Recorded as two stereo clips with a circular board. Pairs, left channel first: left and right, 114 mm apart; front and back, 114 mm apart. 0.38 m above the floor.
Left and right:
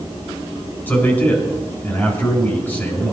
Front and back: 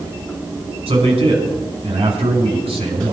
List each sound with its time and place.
0.9 s a man speaking: 160° left, 4.5 m